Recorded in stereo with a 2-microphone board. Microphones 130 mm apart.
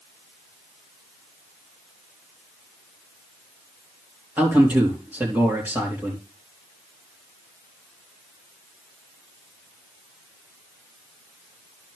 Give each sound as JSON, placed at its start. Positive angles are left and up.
{"t": 4.4, "sound": "a man speaking", "side_deg": -15, "distance_m": 3.0}